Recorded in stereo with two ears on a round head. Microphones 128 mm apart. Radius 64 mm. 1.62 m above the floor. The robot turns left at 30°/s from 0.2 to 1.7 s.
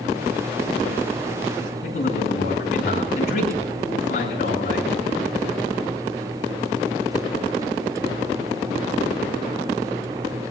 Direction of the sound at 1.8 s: 55° left (ahead or behind).